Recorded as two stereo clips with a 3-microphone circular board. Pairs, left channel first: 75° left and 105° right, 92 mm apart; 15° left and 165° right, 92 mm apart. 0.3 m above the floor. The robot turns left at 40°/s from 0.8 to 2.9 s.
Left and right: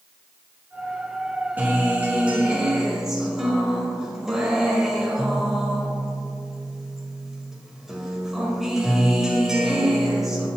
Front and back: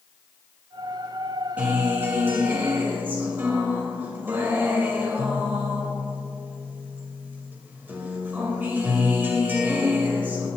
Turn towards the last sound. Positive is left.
turn(degrees=180)